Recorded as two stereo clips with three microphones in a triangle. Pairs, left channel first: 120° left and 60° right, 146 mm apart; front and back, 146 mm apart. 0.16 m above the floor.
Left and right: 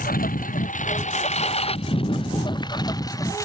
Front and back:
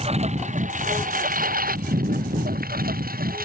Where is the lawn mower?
135° left; by 3.5 s 170° right.